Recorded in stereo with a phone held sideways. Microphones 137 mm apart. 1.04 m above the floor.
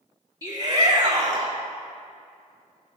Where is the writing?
I don't hear writing.